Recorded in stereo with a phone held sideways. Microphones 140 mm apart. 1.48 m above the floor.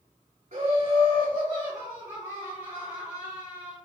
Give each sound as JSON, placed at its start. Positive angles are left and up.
{"t": 0.5, "sound": "laughter", "side_deg": -55, "distance_m": 1.0}